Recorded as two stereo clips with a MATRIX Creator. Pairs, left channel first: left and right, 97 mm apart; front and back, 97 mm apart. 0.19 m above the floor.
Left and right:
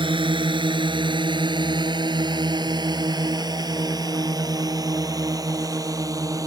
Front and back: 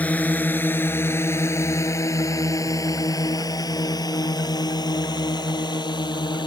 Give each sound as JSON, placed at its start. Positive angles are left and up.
{"t": 0.0, "sound": "a drone", "azimuth_deg": -75}